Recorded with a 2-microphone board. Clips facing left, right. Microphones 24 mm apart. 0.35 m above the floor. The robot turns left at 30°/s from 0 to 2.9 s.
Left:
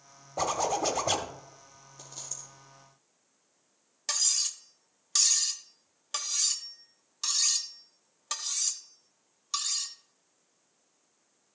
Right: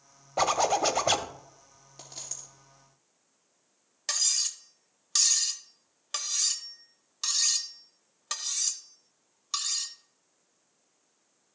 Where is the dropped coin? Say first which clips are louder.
Right 1 dB; 70° right (ahead or behind), 3.5 m; by 2.5 s 55° right (ahead or behind), 3.5 m.